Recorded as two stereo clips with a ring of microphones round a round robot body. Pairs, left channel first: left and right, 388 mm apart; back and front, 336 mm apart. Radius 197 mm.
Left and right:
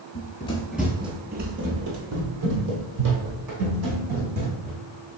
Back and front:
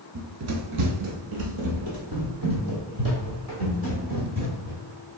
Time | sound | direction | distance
0.1 | running footsteps | 40° left | 0.6 m